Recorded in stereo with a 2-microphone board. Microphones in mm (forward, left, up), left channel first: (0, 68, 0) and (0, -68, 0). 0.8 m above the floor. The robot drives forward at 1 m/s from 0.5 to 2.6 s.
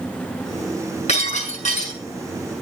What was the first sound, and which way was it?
Breaking glass, 50° left (ahead or behind).